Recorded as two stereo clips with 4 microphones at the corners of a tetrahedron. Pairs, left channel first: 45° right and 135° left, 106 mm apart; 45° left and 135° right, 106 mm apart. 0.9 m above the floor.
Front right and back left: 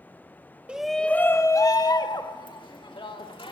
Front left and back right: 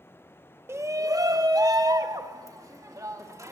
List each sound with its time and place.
0.7 s a shout: 160° right, 0.6 m; by 3.5 s 75° right, 2 m